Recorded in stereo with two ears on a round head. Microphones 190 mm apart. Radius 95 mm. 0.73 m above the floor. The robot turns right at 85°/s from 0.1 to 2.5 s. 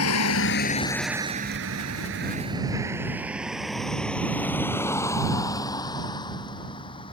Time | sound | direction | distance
0.0 | a vehicle | 75° left (ahead or behind) | ?